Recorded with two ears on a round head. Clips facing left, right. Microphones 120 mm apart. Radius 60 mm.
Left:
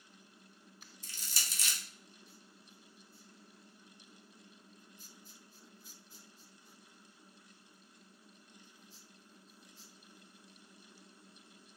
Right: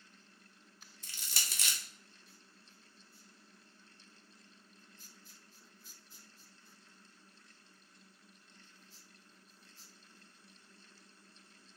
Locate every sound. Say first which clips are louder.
1.0 s crushing: right 1 dB; 45° right (ahead or behind), 0.8 m